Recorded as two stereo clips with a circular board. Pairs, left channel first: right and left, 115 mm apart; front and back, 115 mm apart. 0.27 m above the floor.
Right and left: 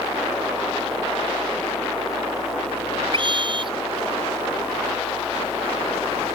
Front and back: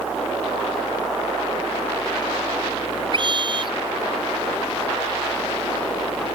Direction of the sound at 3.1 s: 135° left.